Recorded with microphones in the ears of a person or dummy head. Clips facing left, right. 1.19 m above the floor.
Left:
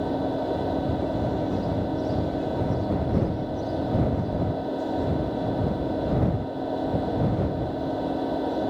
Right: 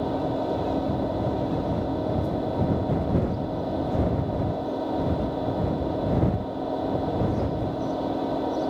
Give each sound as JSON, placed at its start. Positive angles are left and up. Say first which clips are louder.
{"t": 0.0, "sound": "an engine running", "louder": "even", "side_deg": 5}